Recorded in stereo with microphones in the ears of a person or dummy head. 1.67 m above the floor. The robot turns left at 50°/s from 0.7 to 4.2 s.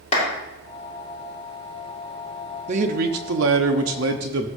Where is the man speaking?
40° right, 1.0 m; by 4.5 s 120° right, 1.0 m.